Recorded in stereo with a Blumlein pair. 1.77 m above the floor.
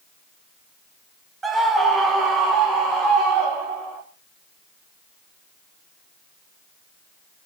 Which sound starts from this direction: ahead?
A scream, at 1.4 s.